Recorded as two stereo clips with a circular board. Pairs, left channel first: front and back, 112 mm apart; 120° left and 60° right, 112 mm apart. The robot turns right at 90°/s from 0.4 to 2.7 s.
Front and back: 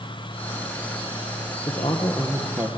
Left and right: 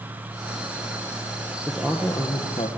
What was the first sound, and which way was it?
A man speaking, 30° left.